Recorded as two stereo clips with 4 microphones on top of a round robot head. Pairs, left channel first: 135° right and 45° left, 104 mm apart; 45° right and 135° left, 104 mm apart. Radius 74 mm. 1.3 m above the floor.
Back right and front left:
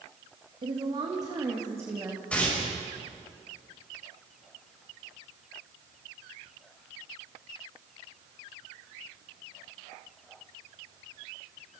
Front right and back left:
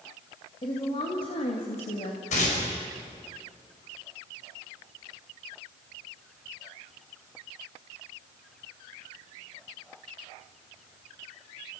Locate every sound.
0.6 s a woman speaking: 5° left, 2 m; by 2.2 s 25° right, 2.5 m
2.3 s tearing paper: 55° right, 5.5 m